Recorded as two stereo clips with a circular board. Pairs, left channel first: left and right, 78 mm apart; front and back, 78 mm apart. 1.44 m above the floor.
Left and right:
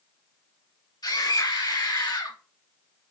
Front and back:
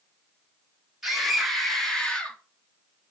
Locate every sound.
1.0 s a scream: 95° left, 3.5 m; by 2.4 s 70° left, 2.5 m